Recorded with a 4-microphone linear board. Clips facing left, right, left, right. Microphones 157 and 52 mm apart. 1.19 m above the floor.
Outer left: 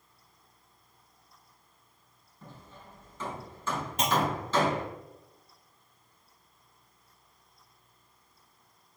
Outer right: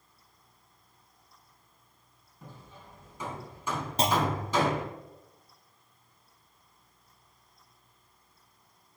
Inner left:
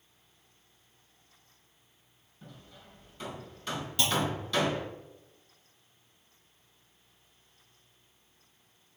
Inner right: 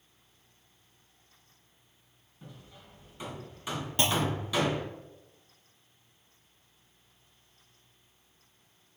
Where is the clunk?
35° right (ahead or behind), 0.8 m.